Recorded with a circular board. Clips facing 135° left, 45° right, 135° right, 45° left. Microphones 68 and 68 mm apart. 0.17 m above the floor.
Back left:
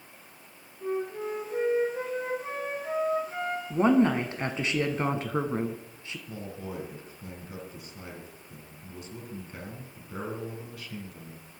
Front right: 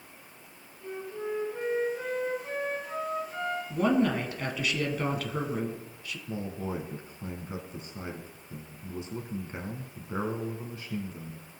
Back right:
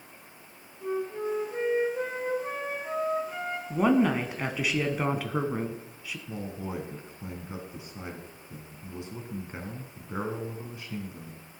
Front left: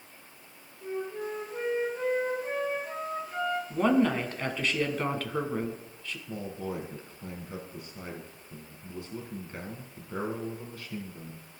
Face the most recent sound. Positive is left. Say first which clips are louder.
# front right 5 dB, front left 1 dB
turn(degrees=-80)